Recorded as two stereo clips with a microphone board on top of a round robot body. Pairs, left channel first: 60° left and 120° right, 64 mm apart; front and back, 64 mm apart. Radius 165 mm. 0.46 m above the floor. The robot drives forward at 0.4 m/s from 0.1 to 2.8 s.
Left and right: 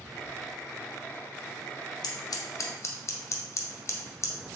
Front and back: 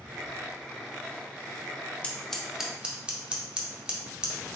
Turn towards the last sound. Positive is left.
turn(degrees=105)